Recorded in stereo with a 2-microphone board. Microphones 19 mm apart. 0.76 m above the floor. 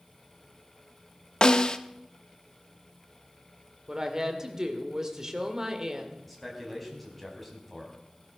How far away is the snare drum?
About 0.8 m.